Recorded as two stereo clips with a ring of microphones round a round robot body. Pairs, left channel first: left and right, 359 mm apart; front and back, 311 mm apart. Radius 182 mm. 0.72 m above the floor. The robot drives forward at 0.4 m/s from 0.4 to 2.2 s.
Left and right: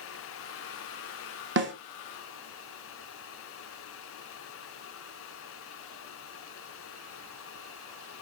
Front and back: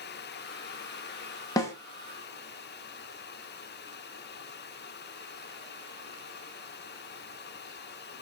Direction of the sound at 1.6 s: 70° right.